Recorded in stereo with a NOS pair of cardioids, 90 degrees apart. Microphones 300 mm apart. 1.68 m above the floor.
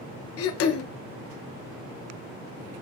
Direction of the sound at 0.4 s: 55° left.